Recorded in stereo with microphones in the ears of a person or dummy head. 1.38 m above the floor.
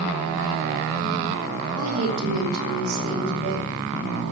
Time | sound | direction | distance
1.8 | a woman speaking | 70° right (ahead or behind) | 3.5 m